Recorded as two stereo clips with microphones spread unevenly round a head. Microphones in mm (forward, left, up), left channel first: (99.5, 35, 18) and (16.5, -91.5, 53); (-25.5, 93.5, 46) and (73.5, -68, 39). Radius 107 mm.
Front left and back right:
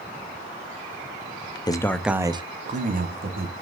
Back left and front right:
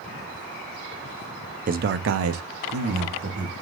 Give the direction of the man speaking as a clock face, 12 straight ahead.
12 o'clock.